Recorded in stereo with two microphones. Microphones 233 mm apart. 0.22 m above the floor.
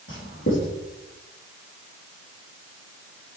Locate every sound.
0.1 s writing: 60° left (ahead or behind), 5 m